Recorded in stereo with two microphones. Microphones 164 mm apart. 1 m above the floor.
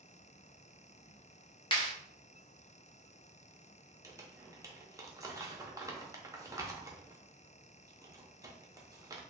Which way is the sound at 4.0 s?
20° right (ahead or behind).